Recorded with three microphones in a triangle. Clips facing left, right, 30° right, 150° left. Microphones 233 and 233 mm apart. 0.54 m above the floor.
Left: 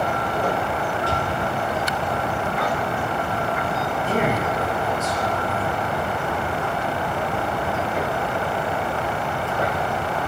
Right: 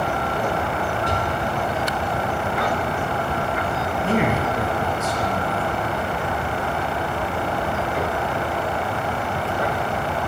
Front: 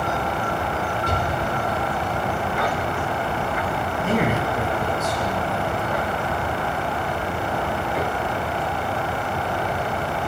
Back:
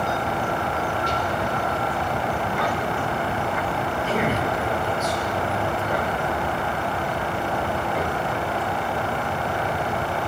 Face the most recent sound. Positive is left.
turn(degrees=-65)